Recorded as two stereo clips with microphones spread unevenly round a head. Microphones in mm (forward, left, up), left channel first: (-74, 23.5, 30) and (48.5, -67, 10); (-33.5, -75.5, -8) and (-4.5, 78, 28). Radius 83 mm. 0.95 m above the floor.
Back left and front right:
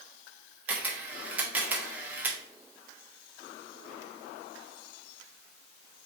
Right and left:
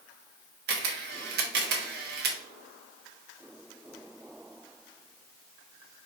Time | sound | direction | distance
0.7 | a camera shutter | 45° left | 1.0 m